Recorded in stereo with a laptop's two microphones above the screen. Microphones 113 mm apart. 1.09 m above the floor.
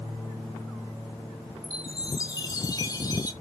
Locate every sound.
1.6 s a chime: 35° left (ahead or behind), 1.5 m